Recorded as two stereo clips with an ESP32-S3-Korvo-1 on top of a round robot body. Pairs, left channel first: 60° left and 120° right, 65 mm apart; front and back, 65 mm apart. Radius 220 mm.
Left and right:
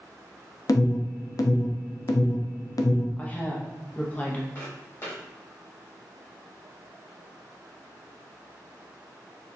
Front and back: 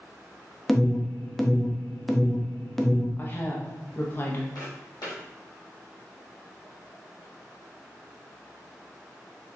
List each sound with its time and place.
0.7 s an alarm: 85° left, 0.6 m
3.2 s a woman speaking: 15° left, 1.0 m
4.5 s footsteps: 15° left, 1.9 m